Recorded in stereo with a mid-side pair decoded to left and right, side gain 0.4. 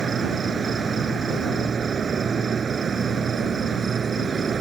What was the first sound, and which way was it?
An insect, 45° right.